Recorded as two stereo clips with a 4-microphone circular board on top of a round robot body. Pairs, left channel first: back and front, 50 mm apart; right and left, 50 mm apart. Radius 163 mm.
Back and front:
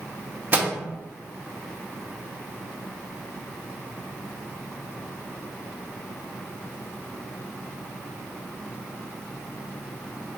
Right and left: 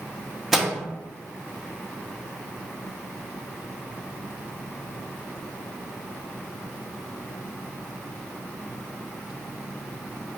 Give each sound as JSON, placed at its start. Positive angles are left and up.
{"t": 0.5, "sound": "a microwave", "azimuth_deg": 10, "distance_m": 0.7}